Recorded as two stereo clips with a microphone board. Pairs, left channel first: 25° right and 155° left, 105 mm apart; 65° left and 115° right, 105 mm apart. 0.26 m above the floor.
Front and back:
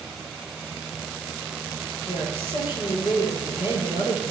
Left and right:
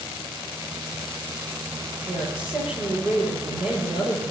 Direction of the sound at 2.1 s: 35° right.